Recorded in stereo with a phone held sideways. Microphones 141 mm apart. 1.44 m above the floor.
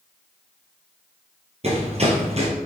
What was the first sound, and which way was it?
Running footsteps, 50° right (ahead or behind).